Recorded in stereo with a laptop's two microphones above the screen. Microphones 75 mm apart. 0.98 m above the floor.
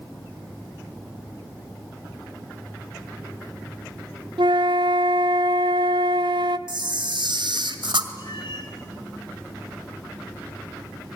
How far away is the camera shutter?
About 1.8 m.